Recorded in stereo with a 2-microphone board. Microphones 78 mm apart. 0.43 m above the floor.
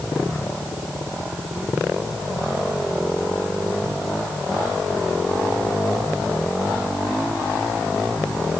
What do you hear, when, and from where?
Only background noise.